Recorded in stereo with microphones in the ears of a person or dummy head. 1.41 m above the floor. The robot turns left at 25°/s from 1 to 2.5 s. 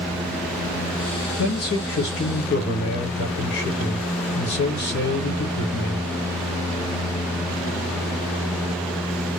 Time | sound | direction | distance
1.4 | a man speaking | 80° left | 1.2 m